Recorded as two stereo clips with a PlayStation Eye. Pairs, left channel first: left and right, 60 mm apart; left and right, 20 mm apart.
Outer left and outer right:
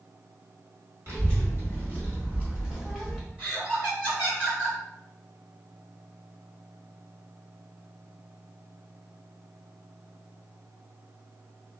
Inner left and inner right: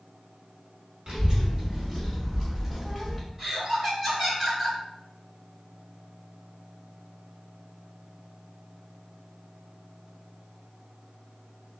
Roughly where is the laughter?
Right.